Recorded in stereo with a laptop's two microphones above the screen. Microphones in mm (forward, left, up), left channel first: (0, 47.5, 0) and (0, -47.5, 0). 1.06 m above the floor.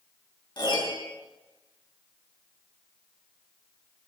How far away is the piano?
About 3.5 m.